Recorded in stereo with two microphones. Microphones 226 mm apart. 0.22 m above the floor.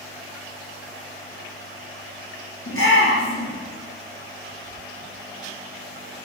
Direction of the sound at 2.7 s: 70° left (ahead or behind).